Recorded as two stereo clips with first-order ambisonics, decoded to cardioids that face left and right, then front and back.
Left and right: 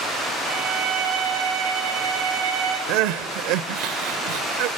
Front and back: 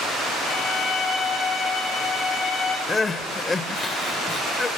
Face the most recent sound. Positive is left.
turn(degrees=-75)